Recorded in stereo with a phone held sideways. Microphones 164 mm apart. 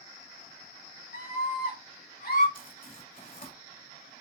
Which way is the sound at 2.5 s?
60° left (ahead or behind).